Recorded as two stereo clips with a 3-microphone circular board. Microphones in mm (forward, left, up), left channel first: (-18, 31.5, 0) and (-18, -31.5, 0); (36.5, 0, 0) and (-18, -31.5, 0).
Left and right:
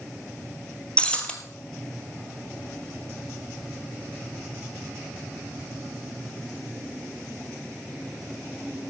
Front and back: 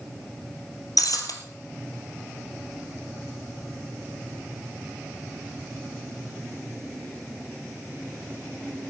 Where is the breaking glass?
20° left, 1.6 m.